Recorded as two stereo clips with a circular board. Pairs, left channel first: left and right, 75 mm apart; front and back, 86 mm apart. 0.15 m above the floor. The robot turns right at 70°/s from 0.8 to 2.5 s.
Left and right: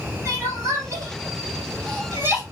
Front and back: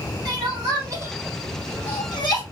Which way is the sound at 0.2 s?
140° right.